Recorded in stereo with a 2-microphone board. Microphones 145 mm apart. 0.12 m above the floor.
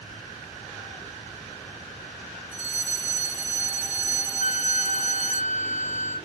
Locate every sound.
2.5 s a fire alarm: 70° left (ahead or behind), 6.5 m
4.4 s a flute: 70° left (ahead or behind), 3.5 m